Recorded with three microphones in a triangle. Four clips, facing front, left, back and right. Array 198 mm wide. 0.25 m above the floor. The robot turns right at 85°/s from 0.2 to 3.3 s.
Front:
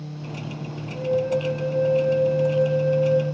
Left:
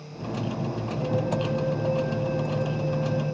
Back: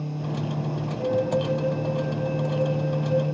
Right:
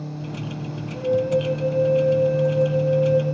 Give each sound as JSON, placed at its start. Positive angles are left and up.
{"t": 0.9, "sound": "a flute", "azimuth_deg": -60, "distance_m": 3.0}